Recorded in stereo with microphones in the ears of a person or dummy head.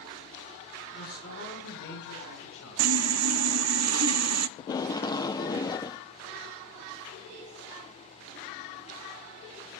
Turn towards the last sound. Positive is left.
turn(degrees=20)  # may be behind; listen again after turning